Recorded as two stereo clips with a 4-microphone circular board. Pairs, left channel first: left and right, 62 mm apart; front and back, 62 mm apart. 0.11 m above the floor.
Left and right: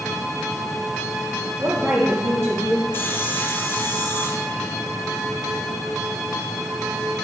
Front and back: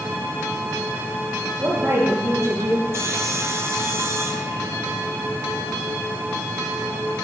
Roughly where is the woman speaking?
Behind right.